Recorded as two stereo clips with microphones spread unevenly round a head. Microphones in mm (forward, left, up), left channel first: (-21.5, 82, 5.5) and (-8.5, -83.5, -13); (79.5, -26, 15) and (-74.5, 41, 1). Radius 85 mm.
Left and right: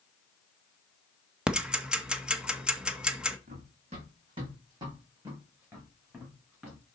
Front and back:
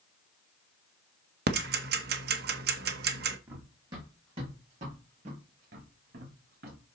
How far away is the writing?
No writing in this recording.